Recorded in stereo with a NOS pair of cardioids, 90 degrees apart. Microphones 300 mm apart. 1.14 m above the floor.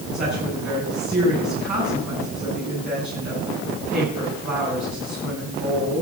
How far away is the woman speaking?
About 8 m.